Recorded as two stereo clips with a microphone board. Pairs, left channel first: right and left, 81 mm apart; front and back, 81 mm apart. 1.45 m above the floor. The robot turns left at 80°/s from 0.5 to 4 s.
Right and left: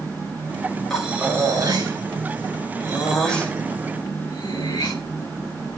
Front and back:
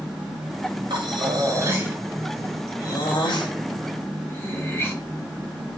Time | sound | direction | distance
0.9 | breathing | 175° right | 3 m